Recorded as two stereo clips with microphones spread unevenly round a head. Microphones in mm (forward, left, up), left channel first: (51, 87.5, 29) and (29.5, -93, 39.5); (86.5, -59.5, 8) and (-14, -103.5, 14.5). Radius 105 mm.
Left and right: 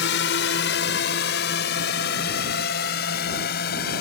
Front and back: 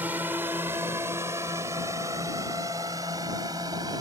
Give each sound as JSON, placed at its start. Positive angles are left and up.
{"t": 0.0, "sound": "a drone", "azimuth_deg": 120}